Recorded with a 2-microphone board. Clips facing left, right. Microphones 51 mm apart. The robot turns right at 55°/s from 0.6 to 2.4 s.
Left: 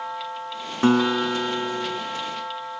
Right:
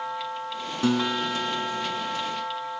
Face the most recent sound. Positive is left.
turn(degrees=135)